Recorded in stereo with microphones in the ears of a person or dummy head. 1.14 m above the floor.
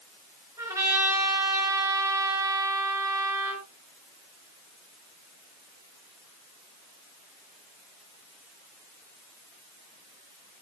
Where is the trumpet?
20° right (ahead or behind), 4.5 m.